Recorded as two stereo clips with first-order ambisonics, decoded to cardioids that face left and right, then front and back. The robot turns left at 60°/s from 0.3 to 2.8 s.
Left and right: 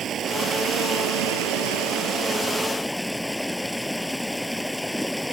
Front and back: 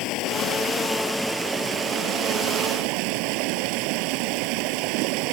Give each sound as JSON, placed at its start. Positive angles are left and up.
{"t": 0.0, "sound": "running water", "azimuth_deg": -30}